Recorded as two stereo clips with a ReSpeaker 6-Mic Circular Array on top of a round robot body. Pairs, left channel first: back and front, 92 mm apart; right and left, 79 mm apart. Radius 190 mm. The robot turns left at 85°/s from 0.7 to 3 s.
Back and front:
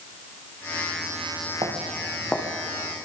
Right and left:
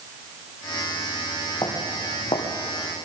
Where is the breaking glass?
I don't hear breaking glass.